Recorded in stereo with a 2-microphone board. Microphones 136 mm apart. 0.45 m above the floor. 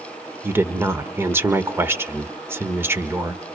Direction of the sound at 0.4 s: 15° right (ahead or behind).